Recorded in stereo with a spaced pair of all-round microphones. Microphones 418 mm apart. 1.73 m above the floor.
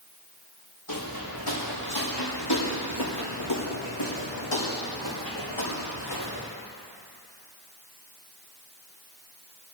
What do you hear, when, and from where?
0.9 s footsteps: 45° left (ahead or behind), 4 m; by 6.5 s 65° left (ahead or behind), 6 m